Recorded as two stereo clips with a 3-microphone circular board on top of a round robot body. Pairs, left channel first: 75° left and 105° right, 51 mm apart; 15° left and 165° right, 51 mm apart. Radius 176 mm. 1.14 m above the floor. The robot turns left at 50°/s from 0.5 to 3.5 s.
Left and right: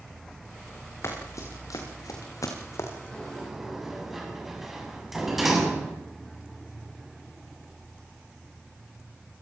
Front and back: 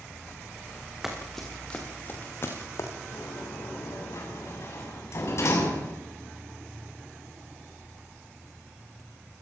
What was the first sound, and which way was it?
Running footsteps, 110° left.